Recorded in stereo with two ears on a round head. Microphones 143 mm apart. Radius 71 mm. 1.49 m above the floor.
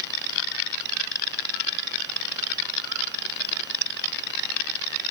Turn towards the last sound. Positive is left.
No sound to turn to.